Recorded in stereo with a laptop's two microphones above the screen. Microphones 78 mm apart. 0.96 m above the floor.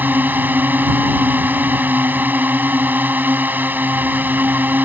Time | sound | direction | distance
0.0 | a drone | 25° right (ahead or behind) | ?